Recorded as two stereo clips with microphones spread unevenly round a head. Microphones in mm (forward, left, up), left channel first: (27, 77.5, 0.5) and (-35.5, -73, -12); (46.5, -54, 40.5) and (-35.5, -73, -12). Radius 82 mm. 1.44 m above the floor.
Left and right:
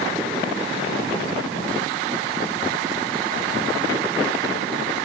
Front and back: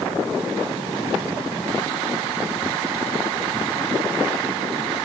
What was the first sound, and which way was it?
Only background noise.